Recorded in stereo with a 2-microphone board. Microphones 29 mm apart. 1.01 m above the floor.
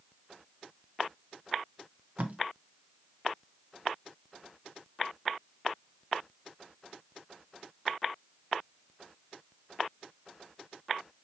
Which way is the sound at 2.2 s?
50° right (ahead or behind).